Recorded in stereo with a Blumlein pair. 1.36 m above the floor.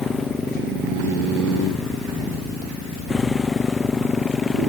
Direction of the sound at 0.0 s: 15° left.